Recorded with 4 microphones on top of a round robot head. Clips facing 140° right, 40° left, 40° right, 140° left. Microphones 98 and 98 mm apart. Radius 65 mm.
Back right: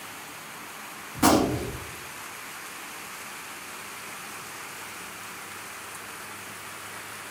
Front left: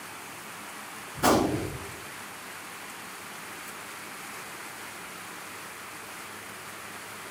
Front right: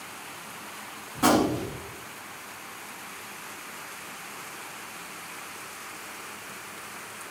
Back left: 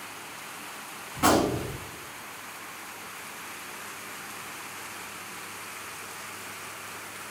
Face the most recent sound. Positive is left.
turn(degrees=-110)